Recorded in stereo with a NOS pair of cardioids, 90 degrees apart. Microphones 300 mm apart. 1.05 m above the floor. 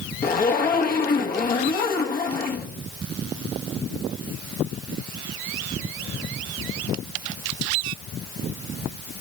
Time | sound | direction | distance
0.2 | a zipper | 30° left | 1.5 m